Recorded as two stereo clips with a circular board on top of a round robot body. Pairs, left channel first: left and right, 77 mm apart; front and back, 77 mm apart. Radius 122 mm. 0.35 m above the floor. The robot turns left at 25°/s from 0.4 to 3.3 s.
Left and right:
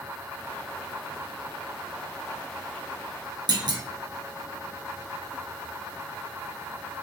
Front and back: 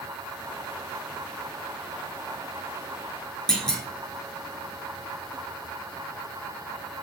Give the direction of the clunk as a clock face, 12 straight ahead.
3 o'clock.